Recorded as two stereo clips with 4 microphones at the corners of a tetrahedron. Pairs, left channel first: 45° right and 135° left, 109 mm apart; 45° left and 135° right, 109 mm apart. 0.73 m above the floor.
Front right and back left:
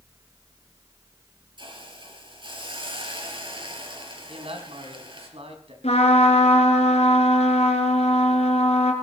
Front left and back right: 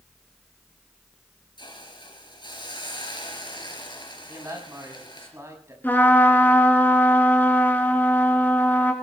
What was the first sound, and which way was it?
A hiss, 90° left.